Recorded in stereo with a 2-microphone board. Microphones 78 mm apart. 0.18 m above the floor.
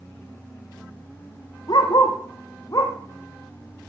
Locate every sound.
1.7 s a dog barking: 65° left (ahead or behind), 2 m; by 2.9 s 45° left (ahead or behind), 1.8 m